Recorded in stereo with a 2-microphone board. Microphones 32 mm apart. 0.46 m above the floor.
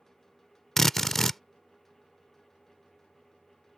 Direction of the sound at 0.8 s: 10° left (ahead or behind).